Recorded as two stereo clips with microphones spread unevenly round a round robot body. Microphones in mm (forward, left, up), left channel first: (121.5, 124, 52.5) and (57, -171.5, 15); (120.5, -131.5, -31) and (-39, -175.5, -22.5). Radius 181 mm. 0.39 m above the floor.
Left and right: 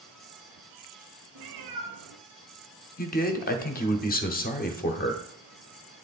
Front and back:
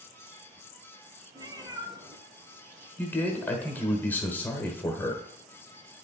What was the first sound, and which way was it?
A cat meowing, 95° right.